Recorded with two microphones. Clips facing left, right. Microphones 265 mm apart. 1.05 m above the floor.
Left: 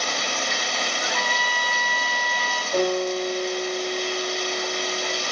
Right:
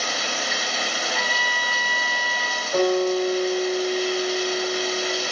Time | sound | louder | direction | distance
0.0 | running water | even | 5° right (ahead or behind) | 0.9 m
1.0 | a trumpet | even | 40° right (ahead or behind) | 1.2 m
2.7 | a guitar | right 3 dB | 5° left (ahead or behind) | 4 m